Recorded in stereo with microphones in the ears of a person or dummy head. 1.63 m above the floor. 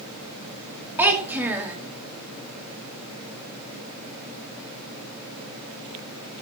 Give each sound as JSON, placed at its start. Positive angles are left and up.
{"t": 1.0, "sound": "a child speaking", "side_deg": -5, "distance_m": 1.6}